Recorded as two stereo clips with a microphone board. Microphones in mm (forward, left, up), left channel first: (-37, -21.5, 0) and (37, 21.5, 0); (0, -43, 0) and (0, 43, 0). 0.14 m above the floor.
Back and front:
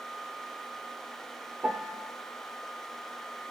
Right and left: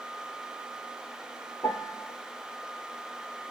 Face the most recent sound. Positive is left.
turn(degrees=-40)